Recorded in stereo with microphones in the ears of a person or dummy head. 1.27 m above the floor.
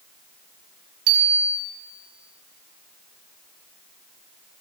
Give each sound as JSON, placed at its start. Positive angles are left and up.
{"t": 1.1, "sound": "a bicycle bell", "side_deg": -80, "distance_m": 6.5}